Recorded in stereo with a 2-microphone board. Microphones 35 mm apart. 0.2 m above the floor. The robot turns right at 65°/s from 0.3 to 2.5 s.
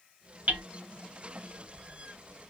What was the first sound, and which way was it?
Hammering, 45° right (ahead or behind).